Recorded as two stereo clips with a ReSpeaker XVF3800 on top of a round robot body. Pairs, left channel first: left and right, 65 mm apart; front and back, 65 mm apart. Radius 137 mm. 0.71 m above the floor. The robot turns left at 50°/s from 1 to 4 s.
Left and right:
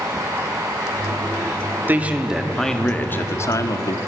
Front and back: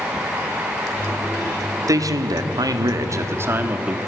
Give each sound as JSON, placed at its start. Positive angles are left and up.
{"t": 1.9, "sound": "a man speaking", "azimuth_deg": -150, "distance_m": 1.8}